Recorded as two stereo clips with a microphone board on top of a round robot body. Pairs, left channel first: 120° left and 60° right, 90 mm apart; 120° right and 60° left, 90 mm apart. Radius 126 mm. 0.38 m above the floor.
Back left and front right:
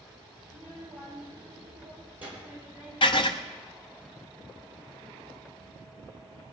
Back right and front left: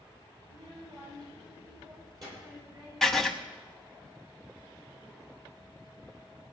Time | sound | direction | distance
0.4 | a child speaking | 15° left | 9.5 m
3.0 | writing | 155° left | 0.9 m